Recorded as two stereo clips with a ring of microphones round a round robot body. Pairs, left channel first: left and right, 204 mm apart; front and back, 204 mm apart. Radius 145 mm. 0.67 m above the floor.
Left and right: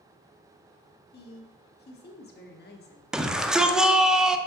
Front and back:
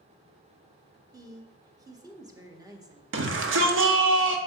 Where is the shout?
175° right, 0.8 m.